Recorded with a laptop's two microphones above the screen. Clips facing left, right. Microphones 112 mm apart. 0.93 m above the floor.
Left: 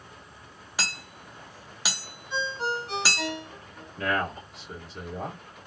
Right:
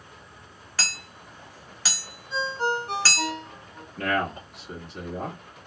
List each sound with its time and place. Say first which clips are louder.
0.8 s hammering: even; 15° left (ahead or behind), 0.7 m
2.3 s a ringtone: right 3 dB; 35° right (ahead or behind), 1.1 m
4.0 s a man speaking: right 2 dB; 55° right (ahead or behind), 1.4 m